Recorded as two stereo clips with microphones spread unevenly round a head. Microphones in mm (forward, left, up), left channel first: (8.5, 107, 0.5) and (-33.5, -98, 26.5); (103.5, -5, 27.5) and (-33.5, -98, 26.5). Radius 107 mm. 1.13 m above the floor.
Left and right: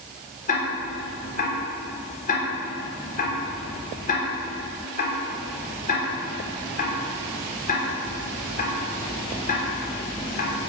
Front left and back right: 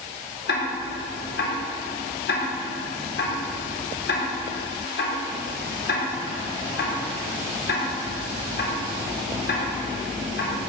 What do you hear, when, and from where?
0.5 s ticking: 25° left, 3.5 m